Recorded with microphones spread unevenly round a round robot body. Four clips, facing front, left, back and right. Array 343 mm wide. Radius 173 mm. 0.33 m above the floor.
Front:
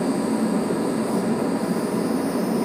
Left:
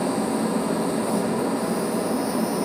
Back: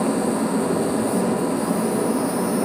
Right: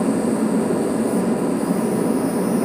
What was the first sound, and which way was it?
An insect, 165° right.